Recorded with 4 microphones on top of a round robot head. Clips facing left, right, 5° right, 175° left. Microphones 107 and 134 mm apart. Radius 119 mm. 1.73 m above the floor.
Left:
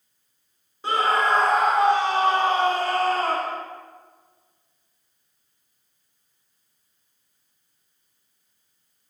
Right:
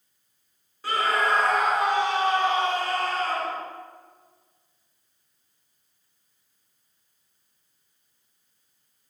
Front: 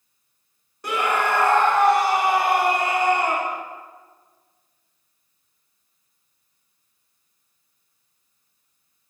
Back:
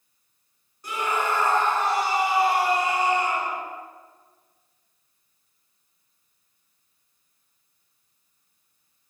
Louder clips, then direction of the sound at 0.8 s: Left 3 dB, front 4 dB; 20° left.